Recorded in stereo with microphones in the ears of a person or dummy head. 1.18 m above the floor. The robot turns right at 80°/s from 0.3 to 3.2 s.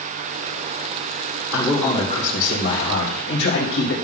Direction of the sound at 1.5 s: 15° right.